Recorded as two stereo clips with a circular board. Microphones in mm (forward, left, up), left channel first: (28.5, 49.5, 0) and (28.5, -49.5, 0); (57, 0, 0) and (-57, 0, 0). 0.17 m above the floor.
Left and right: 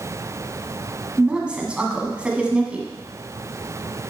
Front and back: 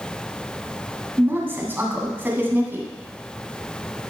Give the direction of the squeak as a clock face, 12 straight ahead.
I don't hear a squeak.